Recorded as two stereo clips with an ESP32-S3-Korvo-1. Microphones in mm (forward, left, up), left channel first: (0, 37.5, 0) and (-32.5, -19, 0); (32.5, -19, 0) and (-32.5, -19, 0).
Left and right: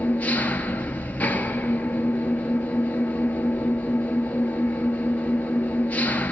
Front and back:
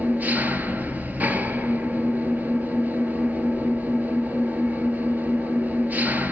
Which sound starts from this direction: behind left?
An engine running, at 0.0 s.